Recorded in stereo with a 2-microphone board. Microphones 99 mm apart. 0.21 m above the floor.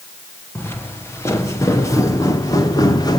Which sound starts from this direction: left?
Footsteps, at 0.6 s.